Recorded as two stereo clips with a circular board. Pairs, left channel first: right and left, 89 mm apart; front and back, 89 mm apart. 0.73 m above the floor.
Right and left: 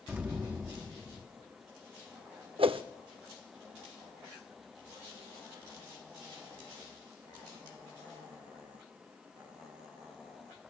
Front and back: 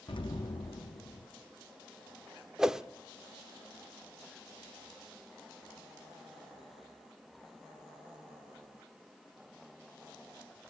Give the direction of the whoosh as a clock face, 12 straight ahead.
9 o'clock.